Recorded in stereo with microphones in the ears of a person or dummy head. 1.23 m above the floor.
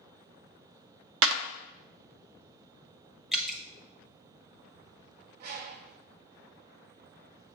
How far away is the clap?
About 0.6 m.